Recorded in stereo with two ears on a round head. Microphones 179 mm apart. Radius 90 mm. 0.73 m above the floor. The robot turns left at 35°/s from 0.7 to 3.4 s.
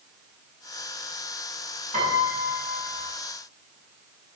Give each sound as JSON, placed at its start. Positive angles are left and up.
{"t": 1.9, "sound": "a piano", "azimuth_deg": -145, "distance_m": 6.5}